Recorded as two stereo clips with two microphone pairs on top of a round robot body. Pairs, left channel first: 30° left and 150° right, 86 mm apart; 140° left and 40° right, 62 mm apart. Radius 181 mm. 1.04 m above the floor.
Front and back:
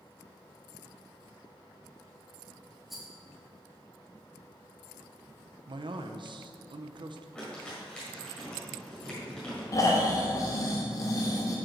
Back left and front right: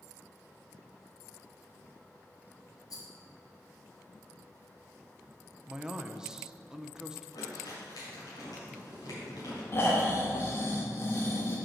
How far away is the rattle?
About 1.8 m.